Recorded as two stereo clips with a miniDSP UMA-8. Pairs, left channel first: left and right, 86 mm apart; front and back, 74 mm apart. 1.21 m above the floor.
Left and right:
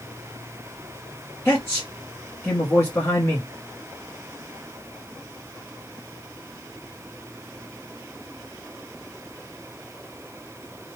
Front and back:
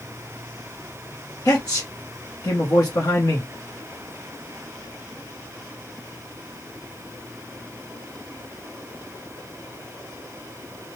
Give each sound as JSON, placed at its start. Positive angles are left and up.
{"t": 1.4, "sound": "a man speaking", "azimuth_deg": 30, "distance_m": 0.9}